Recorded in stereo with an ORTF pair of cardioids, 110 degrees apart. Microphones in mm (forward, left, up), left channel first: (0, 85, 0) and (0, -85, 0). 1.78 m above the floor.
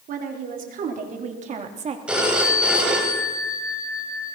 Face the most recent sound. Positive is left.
turn(degrees=-5)